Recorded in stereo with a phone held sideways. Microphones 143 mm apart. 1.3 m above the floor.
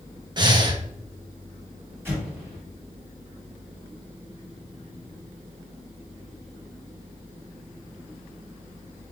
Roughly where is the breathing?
Right.